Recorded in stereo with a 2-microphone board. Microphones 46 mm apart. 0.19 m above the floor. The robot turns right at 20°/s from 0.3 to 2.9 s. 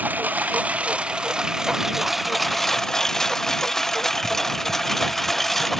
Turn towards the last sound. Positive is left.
turn(degrees=5)  # may be behind; listen again after turning